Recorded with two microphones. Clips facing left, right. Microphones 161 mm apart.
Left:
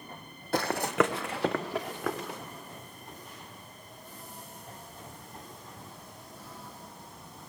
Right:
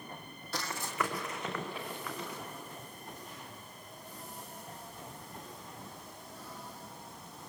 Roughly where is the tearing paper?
No tearing paper in this recording.